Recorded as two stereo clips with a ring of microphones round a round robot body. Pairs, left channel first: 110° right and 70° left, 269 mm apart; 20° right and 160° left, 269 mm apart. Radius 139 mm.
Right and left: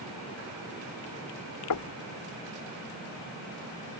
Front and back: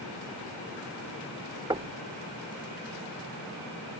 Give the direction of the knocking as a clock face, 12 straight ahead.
4 o'clock.